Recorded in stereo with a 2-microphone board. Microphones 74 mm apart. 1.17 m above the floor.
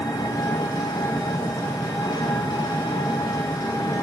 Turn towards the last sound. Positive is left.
turn(degrees=65)  # may be behind; listen again after turning